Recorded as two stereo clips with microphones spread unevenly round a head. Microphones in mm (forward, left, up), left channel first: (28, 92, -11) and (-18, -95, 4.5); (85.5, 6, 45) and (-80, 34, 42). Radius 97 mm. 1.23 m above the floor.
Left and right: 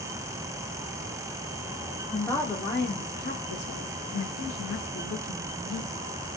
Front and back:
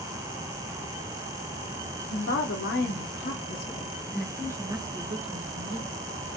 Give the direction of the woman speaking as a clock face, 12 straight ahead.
12 o'clock.